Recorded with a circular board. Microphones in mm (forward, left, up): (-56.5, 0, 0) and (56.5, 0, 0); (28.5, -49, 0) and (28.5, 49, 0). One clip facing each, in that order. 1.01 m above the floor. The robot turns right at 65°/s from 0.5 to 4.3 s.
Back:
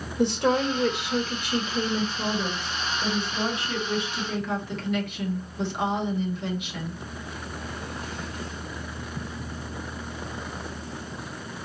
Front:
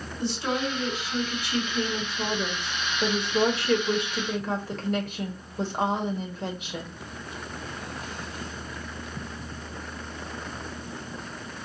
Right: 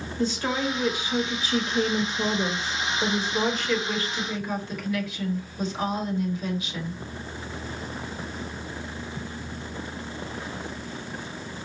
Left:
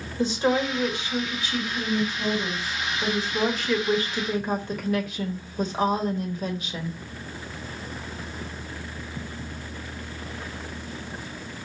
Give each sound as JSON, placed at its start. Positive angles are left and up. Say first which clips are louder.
{"t": 0.2, "sound": "a woman speaking", "louder": "back 6 dB, left 4 dB", "azimuth_deg": 160, "distance_m": 1.2}